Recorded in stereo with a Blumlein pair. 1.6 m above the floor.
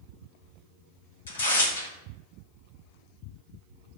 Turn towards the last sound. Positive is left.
turn(degrees=65)